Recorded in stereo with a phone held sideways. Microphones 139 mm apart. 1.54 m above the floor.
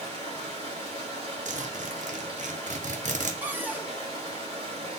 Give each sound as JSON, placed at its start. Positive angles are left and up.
{"t": 0.0, "sound": "running water", "side_deg": -45, "distance_m": 2.5}
{"t": 1.4, "sound": "a zipper", "side_deg": -70, "distance_m": 0.8}
{"t": 3.4, "sound": "a cupboard door", "side_deg": -15, "distance_m": 0.6}